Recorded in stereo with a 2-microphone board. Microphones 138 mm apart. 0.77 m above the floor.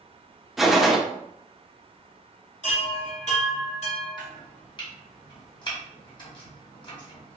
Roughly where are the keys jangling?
I don't hear keys jangling.